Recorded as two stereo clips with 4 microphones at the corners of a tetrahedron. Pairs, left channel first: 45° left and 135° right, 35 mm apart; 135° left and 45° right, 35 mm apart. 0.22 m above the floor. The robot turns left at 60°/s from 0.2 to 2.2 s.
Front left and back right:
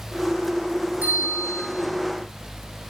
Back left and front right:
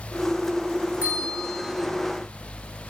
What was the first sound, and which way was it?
A bell, 85° right.